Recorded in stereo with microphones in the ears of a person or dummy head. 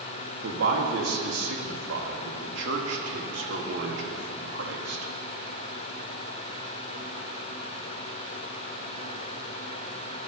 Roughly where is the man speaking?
Right.